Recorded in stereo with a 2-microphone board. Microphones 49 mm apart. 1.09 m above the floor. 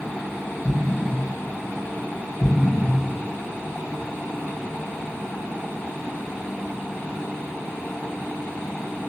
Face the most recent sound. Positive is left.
turn(degrees=25)  # may be behind; listen again after turning